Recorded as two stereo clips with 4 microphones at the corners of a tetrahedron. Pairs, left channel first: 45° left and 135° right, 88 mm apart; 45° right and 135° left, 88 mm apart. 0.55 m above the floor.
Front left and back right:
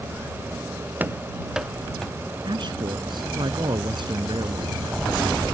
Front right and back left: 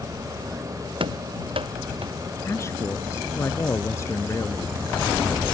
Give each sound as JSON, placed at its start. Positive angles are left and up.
{"t": 1.0, "sound": "running footsteps", "azimuth_deg": 155}
{"t": 2.5, "sound": "a man speaking", "azimuth_deg": -105}